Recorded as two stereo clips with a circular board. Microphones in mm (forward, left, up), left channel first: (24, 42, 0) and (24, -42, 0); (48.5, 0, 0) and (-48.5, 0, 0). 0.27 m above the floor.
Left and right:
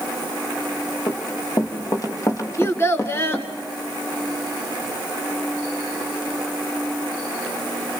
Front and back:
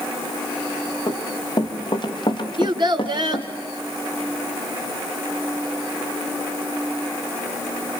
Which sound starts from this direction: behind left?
A child speaking, at 2.6 s.